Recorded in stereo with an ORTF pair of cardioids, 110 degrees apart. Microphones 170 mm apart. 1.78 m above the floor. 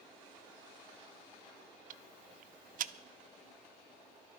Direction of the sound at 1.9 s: 55° right.